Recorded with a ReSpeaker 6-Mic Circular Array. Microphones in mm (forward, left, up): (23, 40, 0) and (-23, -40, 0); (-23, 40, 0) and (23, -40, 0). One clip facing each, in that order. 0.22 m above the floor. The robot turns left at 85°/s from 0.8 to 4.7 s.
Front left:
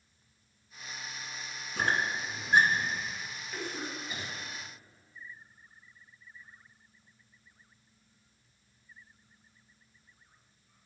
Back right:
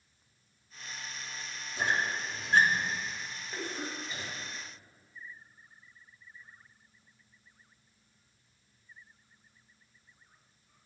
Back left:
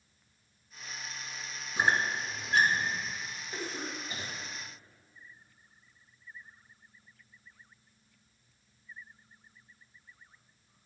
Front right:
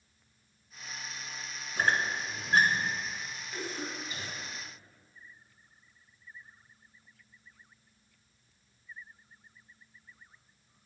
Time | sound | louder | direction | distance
1.8 | a squeak | front left 1 dB, back left 1 dB | 55° left | 1.1 m
3.5 | a cough | even, even | 175° left | 1.9 m